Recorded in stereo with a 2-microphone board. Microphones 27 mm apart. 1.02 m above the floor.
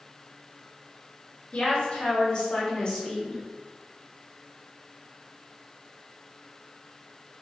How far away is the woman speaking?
About 1.8 m.